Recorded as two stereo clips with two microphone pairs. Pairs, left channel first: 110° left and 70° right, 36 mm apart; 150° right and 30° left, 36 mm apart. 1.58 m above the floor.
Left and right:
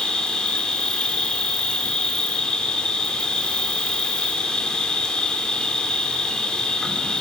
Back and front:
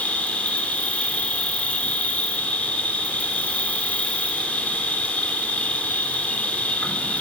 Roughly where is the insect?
Behind.